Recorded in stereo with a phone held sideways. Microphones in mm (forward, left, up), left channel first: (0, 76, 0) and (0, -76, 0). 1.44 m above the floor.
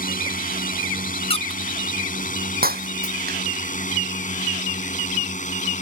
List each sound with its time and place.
0.0 s a drone: 60° left (ahead or behind); by 5.8 s 50° left (ahead or behind)
1.3 s a squeak: 35° left (ahead or behind)
2.6 s breaking glass: 70° right (ahead or behind)